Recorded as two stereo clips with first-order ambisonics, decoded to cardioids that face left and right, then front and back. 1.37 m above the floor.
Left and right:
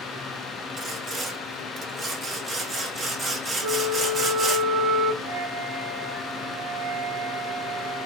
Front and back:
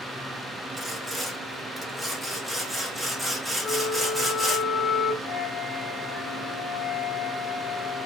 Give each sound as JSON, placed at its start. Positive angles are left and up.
{"t": 0.8, "sound": "sawing", "azimuth_deg": -110, "distance_m": 0.8}
{"t": 3.6, "sound": "a flute", "azimuth_deg": -85, "distance_m": 0.7}
{"t": 5.2, "sound": "a flute", "azimuth_deg": -90, "distance_m": 1.7}